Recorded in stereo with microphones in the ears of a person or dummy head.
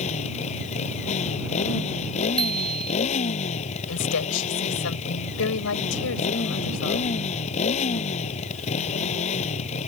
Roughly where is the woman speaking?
Left.